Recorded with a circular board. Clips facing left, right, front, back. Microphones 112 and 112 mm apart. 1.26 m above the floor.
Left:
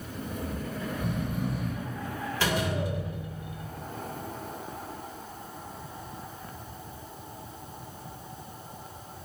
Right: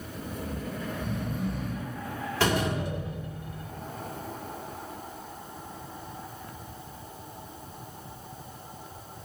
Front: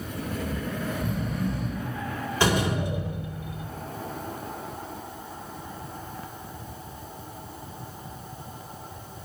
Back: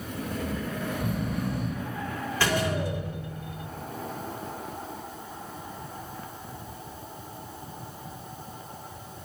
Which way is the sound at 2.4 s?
70° right.